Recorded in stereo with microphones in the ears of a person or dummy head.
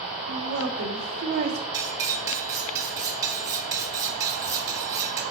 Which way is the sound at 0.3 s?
85° right.